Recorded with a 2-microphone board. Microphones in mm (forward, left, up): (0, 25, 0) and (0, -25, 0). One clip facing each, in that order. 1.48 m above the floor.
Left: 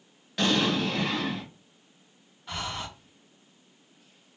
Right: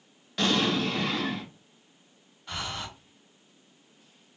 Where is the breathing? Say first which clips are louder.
Left 1 dB; 5° left (ahead or behind), 0.9 m.